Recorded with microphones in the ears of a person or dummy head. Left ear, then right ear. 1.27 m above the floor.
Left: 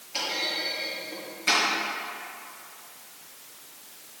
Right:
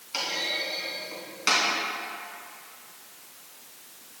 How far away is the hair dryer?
No hair dryer in this recording.